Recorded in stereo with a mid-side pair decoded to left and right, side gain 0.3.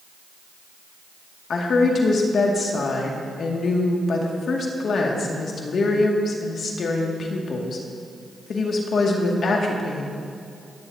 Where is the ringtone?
I don't hear a ringtone.